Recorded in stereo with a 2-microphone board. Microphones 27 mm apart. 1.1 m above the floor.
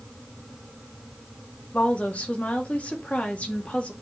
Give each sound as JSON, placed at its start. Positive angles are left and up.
{"t": 1.7, "sound": "a woman speaking", "side_deg": 55, "distance_m": 2.0}